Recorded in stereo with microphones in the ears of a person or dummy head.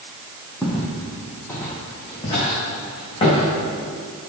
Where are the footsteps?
5° right (ahead or behind), 2.5 m; by 3.5 s 30° left (ahead or behind), 5 m.